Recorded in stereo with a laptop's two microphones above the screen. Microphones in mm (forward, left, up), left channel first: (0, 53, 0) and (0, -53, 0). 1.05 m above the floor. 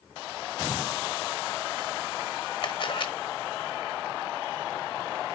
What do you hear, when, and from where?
2.6 s a camera shutter: 50° left (ahead or behind), 1.3 m